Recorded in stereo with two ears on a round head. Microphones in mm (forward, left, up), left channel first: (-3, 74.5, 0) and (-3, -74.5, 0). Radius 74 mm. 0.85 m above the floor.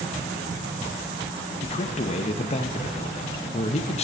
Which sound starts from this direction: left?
A man speaking, at 1.6 s.